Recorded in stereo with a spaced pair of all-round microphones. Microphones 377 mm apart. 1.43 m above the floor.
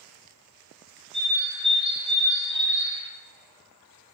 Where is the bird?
15° right (ahead or behind), 1.0 m.